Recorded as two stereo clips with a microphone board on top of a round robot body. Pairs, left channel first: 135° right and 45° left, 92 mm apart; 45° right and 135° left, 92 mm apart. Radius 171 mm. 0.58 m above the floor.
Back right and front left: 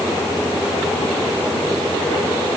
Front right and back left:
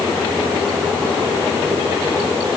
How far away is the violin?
No violin in this recording.